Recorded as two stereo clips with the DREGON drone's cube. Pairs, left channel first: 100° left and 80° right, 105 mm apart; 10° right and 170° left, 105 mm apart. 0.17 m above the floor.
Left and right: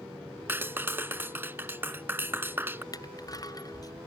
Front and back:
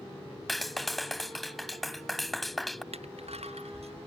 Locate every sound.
0.5 s a clap: 100° right
2.9 s crushing: 155° left